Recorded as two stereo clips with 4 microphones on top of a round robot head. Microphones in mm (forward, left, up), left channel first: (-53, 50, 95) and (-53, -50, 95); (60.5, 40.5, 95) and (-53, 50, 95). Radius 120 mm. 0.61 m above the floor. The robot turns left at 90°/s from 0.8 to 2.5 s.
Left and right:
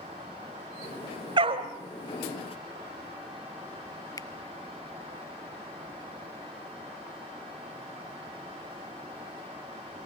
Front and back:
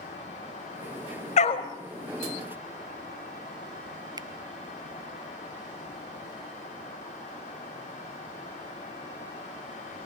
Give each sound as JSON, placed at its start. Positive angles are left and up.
{"t": 1.4, "sound": "a dog barking", "azimuth_deg": -40, "distance_m": 1.3}
{"t": 4.2, "sound": "a finger snap", "azimuth_deg": 135, "distance_m": 0.7}